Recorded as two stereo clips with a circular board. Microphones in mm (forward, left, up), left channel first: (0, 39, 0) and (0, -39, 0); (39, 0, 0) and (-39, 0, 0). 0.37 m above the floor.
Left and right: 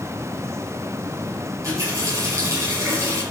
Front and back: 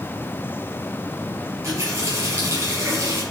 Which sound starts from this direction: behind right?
A running tap, at 1.6 s.